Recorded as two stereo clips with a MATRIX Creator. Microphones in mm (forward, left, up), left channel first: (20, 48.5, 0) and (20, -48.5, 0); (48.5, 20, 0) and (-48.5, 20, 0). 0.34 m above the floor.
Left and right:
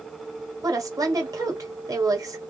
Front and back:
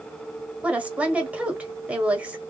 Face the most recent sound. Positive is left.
turn(degrees=-110)